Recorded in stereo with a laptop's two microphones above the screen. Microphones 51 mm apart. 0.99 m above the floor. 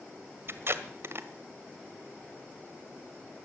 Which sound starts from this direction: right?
Tape being pulled, at 0.5 s.